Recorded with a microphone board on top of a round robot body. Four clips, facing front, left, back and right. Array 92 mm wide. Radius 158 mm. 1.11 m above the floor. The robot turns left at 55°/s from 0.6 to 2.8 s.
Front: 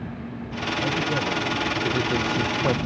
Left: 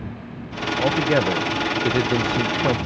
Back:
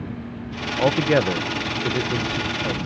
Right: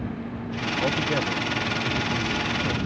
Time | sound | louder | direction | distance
0.8 | a man speaking | left 7 dB, back 8 dB | 160° left | ?